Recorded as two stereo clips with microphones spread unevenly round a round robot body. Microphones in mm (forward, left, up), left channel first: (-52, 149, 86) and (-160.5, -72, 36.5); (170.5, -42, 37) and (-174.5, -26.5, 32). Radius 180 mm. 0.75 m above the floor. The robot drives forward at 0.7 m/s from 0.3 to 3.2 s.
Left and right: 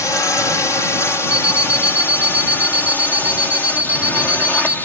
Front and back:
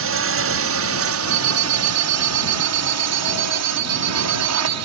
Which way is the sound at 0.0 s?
150° left.